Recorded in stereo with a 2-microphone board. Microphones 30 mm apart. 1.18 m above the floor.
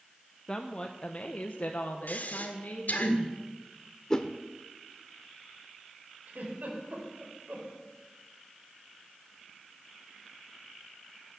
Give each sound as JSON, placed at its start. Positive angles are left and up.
{"t": 0.5, "sound": "a woman speaking", "side_deg": 20, "distance_m": 0.9}
{"t": 2.1, "sound": "breathing", "side_deg": 60, "distance_m": 1.9}
{"t": 4.1, "sound": "a whoosh", "side_deg": 20, "distance_m": 0.9}
{"t": 6.3, "sound": "a giggle", "side_deg": -55, "distance_m": 4.5}